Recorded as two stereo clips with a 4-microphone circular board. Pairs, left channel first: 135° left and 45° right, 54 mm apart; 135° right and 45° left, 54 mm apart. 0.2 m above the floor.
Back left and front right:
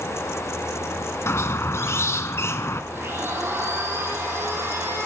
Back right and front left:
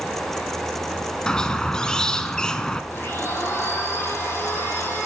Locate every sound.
1.3 s a squeak: 150° left, 1.0 m
2.9 s a blender: 90° right, 4.5 m